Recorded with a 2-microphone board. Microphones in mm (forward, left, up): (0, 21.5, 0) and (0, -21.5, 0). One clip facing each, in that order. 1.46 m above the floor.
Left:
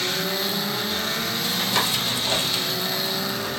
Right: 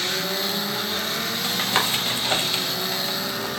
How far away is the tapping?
About 0.6 m.